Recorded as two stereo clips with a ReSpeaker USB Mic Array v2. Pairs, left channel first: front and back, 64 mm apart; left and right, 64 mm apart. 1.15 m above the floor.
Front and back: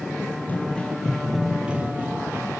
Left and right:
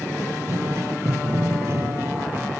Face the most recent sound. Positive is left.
turn(degrees=-140)